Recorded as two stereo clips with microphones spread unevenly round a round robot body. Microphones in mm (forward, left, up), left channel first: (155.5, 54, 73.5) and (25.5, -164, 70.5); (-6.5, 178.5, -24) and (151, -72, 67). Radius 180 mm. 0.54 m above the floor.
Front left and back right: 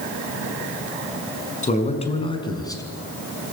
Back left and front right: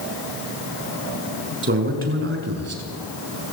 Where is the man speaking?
5° right, 6 m; by 2.8 s 20° right, 5.5 m.